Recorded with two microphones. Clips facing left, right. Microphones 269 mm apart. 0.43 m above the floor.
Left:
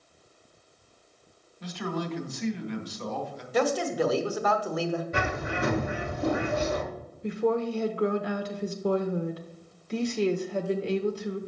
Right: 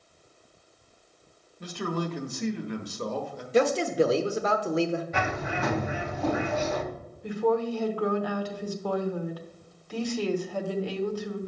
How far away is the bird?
About 1.1 m.